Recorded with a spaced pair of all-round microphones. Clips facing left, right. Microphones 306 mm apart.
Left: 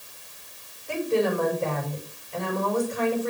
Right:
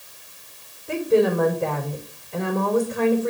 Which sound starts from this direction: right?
A woman speaking, at 0.9 s.